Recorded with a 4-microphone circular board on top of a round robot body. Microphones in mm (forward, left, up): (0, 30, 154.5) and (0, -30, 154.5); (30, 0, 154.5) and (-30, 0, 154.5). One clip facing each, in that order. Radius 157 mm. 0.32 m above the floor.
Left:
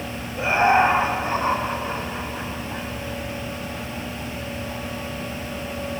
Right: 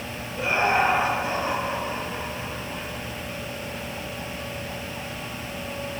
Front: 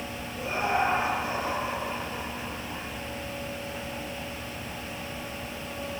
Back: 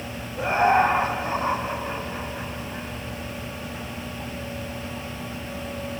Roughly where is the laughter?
Behind.